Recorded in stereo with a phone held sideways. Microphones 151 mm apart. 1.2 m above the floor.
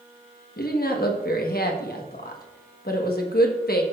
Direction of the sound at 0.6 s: 85° left.